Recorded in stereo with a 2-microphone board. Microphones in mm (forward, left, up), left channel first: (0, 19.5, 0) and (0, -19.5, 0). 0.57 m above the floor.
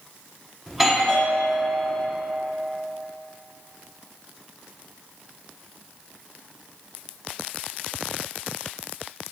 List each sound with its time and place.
0.7 s a doorbell: 5° right (ahead or behind), 1.4 m